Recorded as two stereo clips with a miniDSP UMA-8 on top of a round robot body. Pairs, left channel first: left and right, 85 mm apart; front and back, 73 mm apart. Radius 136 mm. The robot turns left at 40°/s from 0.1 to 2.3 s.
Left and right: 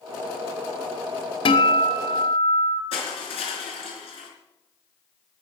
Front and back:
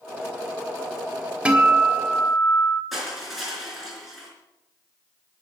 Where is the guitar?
105° left, 1.6 m; by 2.8 s 70° left, 1.6 m.